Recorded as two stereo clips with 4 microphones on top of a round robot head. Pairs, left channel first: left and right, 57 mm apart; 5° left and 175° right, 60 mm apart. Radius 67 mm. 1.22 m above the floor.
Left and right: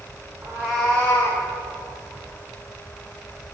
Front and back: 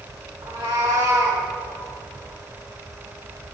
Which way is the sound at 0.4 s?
145° right.